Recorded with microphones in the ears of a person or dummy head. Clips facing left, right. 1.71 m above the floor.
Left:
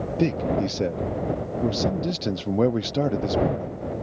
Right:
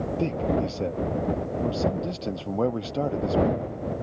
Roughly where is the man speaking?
Left.